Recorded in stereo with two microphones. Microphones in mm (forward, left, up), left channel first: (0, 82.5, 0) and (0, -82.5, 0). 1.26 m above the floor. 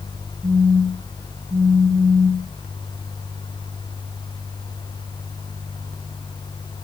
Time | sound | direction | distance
0.4 | a phone buzzing | 20° right (ahead or behind) | 1.5 m